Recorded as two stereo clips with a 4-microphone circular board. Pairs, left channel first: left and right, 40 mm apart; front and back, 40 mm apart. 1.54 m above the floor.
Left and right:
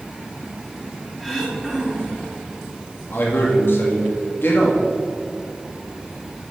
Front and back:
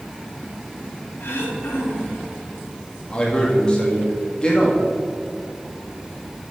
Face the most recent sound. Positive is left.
turn(degrees=65)